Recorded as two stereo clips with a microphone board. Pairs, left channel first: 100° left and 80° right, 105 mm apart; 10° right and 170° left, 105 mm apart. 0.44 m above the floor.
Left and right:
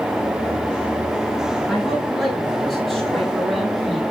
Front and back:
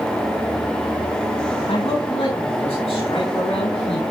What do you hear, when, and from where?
1.7 s a man speaking: 10° left, 7.5 m; by 4.0 s 15° left, 8.5 m